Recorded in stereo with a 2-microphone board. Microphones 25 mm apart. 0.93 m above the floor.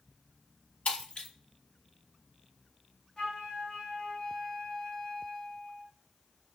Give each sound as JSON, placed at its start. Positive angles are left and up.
{"t": 0.8, "sound": "breaking glass", "side_deg": 60, "distance_m": 1.7}
{"t": 3.2, "sound": "a flute", "side_deg": 50, "distance_m": 1.2}